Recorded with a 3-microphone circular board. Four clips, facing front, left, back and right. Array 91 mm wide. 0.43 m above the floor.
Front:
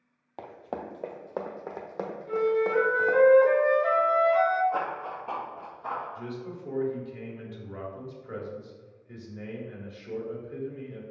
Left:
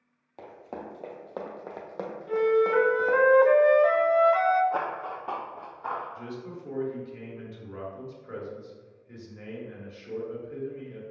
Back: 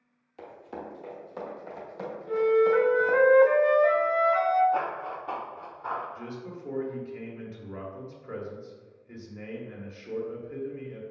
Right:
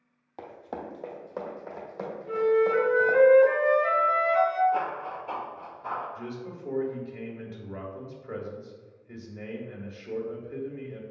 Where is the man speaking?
165° right, 1.3 m.